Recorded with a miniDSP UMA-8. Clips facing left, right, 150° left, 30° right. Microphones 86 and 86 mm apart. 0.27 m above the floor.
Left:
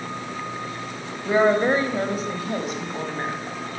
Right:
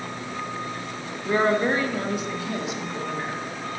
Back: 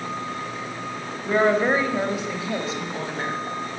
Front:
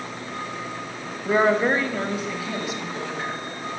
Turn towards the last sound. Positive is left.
turn(degrees=125)